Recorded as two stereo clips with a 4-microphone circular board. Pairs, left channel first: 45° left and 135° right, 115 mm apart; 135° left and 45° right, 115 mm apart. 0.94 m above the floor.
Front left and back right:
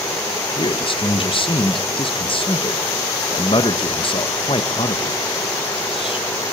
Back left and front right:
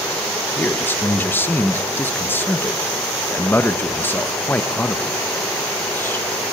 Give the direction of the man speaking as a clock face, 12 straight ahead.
10 o'clock.